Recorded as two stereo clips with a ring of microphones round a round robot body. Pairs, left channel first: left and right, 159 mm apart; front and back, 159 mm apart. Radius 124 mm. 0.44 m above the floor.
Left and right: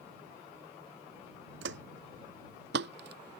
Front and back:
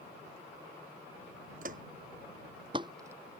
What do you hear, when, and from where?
1.6 s footsteps: 125° right; by 3.4 s 95° right